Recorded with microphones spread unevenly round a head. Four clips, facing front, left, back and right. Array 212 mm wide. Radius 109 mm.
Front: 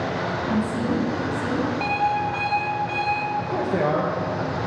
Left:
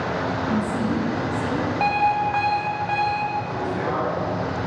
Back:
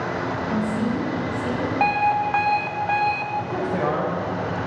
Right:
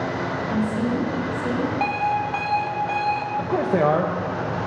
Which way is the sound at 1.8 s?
165° right.